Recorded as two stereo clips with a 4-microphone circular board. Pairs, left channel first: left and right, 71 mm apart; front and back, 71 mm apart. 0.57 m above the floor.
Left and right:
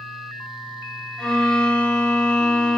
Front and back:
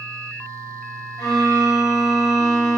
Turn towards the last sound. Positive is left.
turn(degrees=20)